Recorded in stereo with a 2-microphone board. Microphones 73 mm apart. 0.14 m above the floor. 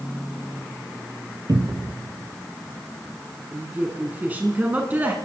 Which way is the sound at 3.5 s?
25° right (ahead or behind).